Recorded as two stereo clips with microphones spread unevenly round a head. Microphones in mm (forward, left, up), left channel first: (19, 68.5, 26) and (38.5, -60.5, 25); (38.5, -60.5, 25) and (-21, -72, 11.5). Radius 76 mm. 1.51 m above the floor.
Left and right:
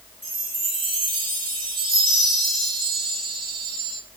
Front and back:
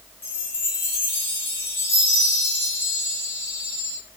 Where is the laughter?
I don't hear laughter.